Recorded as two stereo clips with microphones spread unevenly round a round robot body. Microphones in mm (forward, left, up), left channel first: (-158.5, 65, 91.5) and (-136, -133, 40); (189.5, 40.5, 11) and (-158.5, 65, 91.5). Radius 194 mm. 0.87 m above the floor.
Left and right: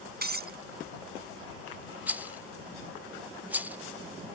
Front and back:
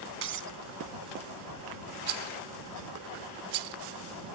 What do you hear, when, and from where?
0.2 s breaking glass: 125° right
2.1 s a rattle: 165° right